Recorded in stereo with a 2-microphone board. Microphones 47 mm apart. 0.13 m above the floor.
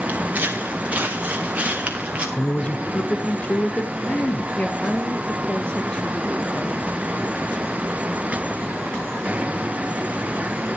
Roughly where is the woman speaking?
Left.